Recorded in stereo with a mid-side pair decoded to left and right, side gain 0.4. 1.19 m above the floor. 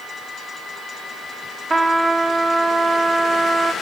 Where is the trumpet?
30° right, 1.0 m.